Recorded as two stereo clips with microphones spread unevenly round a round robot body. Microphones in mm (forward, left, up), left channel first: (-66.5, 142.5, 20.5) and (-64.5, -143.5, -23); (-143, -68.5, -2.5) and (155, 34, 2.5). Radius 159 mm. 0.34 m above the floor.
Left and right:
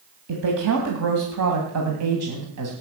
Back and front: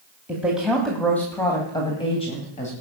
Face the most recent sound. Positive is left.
turn(degrees=-95)